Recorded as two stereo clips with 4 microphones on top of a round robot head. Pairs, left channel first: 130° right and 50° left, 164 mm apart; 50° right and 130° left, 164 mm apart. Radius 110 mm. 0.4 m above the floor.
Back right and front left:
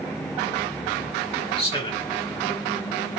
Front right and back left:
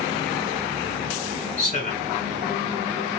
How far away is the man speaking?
About 2.5 m.